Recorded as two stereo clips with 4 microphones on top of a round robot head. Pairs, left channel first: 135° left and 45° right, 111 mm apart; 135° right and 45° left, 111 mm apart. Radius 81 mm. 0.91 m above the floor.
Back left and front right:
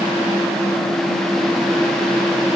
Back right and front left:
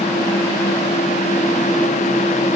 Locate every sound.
Only background noise.